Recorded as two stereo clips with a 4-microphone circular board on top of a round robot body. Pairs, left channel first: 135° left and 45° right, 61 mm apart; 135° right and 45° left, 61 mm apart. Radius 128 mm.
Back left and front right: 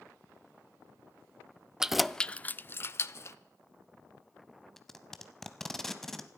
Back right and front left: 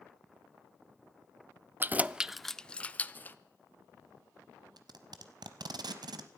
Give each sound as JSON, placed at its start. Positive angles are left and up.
{"t": 1.8, "sound": "keys jangling", "azimuth_deg": 25, "distance_m": 0.6}
{"t": 4.8, "sound": "tape being pulled", "azimuth_deg": 50, "distance_m": 0.7}